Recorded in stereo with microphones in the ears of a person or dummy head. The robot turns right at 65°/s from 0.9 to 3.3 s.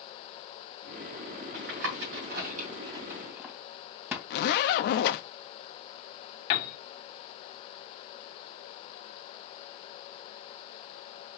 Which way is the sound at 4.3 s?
70° left (ahead or behind).